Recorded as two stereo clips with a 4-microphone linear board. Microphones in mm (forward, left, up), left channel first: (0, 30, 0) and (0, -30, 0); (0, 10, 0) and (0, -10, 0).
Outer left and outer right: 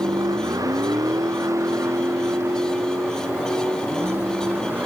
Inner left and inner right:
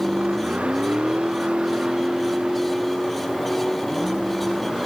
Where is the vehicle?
85° right; by 4.9 s 30° right (ahead or behind).